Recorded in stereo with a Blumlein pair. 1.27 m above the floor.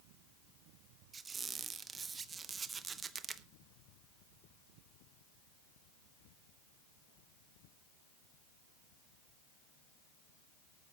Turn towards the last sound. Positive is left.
turn(degrees=-15)